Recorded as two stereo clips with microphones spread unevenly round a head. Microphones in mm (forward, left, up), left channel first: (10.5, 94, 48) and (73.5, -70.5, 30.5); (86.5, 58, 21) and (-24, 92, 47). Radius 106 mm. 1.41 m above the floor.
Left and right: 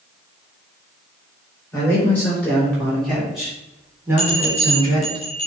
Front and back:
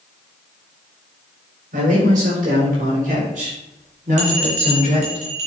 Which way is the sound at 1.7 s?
170° right.